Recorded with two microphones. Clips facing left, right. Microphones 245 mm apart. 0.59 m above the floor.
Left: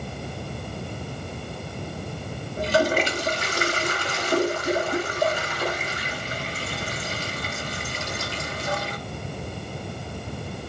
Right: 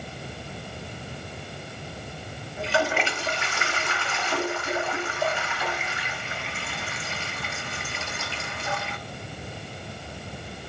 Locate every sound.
2.6 s a toilet flushing: 40° left (ahead or behind), 0.6 m